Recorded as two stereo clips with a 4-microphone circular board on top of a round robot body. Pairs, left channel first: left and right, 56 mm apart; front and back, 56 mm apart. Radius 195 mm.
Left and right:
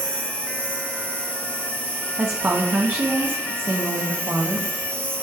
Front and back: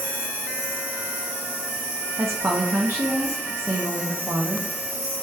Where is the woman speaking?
140° right, 1.1 m.